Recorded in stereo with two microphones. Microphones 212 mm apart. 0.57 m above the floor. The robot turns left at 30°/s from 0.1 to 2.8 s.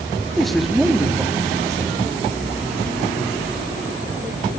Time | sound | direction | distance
0.3 | a man speaking | centre (ahead or behind) | 0.6 m